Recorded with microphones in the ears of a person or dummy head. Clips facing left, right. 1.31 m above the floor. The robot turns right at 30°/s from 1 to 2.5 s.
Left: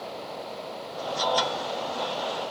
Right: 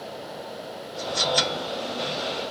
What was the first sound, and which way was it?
Only background noise.